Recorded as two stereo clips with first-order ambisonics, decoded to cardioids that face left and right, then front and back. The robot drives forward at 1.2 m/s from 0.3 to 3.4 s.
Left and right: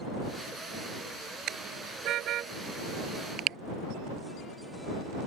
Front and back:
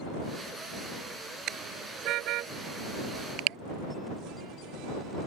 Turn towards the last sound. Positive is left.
turn(degrees=-145)